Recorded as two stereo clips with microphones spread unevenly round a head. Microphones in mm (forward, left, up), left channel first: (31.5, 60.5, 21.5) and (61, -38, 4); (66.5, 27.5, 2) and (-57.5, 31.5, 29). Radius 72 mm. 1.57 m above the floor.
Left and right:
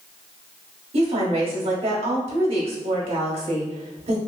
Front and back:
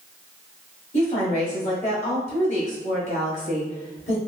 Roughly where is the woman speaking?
Ahead right.